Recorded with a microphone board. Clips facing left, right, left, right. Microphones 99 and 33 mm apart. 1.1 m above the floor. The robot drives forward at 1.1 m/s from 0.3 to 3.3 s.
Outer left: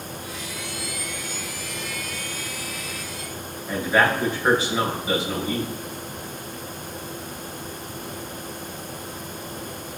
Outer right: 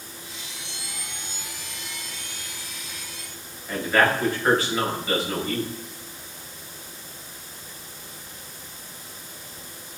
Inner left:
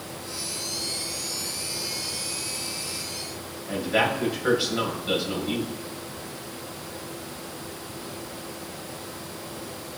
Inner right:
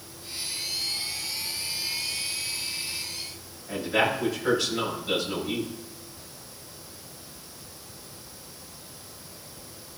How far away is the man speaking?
About 5.5 m.